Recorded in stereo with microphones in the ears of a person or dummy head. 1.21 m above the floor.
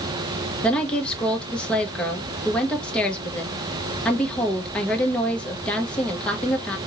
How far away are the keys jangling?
I don't hear keys jangling.